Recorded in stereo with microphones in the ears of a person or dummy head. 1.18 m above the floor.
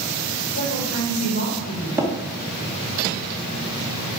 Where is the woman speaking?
60° left (ahead or behind), 4.5 m; by 1.9 s 55° left (ahead or behind), 3 m.